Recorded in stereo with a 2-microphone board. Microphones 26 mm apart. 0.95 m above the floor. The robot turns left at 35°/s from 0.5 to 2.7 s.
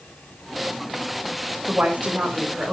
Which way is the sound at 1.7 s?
95° right.